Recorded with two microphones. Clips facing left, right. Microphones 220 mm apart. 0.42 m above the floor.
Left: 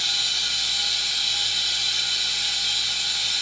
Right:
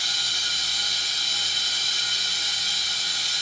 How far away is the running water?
About 2.5 m.